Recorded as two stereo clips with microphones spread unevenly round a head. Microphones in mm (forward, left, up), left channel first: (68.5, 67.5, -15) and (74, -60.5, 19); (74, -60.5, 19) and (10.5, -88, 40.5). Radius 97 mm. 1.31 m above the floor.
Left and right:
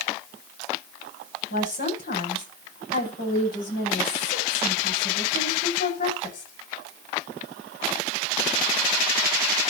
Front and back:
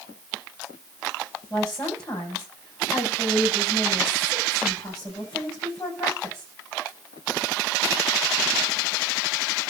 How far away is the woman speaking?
About 8 m.